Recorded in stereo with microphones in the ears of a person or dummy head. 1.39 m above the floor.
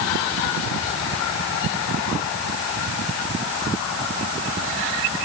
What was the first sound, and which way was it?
Only background noise.